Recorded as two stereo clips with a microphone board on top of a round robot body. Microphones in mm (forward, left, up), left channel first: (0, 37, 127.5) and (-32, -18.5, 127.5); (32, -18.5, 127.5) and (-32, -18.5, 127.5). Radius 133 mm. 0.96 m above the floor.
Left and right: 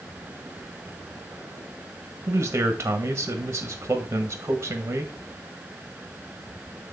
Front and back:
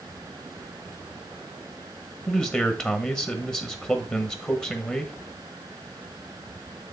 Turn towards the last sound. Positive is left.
turn(degrees=-65)